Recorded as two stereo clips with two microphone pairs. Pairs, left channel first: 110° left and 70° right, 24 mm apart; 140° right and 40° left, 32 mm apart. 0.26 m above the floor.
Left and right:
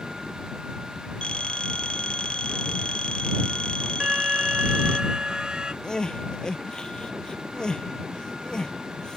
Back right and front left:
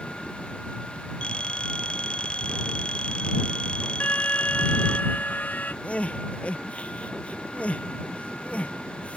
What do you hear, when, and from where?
1.2 s a phone ringing: 160° left
4.0 s an alarm: 120° right
5.8 s crying: 170° left